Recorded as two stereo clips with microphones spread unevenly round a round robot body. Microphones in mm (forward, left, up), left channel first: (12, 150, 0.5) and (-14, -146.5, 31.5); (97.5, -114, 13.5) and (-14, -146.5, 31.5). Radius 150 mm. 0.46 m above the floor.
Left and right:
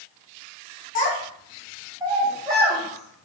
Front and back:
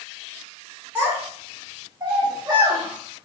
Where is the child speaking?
115° left, 1.0 m; by 3.2 s 115° right, 1.1 m.